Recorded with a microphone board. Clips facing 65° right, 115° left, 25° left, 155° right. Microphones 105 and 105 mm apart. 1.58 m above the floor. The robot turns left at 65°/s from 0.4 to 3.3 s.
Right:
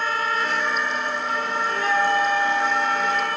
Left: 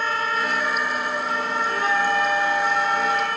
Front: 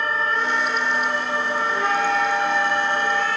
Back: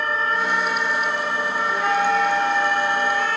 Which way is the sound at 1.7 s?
125° left.